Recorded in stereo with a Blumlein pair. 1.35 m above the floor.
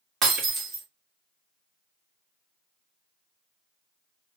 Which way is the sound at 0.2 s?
25° right.